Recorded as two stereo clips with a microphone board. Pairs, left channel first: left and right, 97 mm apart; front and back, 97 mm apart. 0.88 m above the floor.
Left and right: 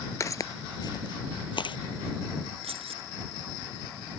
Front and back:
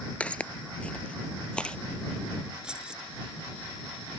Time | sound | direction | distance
0.2 | footsteps | 65° left | ?
2.6 | keys jangling | 100° right | ?